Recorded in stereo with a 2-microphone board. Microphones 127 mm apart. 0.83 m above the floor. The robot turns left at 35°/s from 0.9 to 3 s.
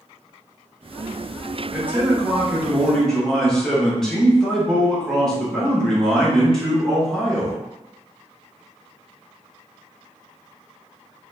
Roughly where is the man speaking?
Centre.